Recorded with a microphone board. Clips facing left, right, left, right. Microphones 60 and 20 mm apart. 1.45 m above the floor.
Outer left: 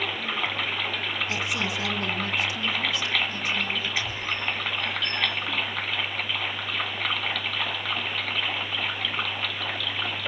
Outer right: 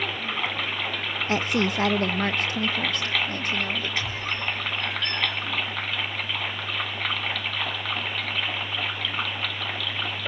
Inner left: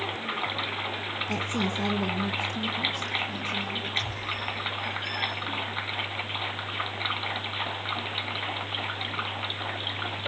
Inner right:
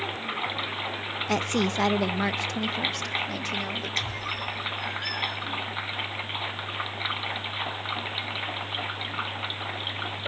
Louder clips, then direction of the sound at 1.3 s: Outer right 9 dB, inner right 5 dB; 45° right (ahead or behind).